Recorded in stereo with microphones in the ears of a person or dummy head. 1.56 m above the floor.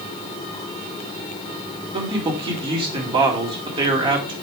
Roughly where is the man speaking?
Right.